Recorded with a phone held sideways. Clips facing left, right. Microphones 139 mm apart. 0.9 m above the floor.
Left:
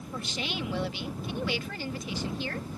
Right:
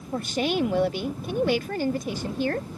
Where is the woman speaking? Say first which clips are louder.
Right 11 dB; 50° right (ahead or behind).